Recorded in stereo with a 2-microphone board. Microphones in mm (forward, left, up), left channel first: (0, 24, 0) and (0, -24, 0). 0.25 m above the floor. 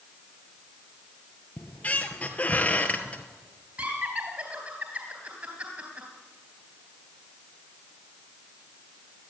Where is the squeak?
30° left (ahead or behind), 1.7 m.